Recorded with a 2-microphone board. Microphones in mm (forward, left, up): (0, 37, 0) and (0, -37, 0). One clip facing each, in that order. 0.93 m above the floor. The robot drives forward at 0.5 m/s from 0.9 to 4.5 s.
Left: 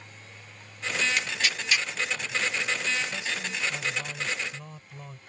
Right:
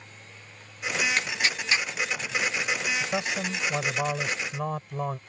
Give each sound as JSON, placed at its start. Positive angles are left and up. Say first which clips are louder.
{"t": 1.2, "sound": "tearing paper", "louder": "right 2 dB", "side_deg": -40}
{"t": 3.0, "sound": "a man speaking", "louder": "right 4 dB", "side_deg": -55}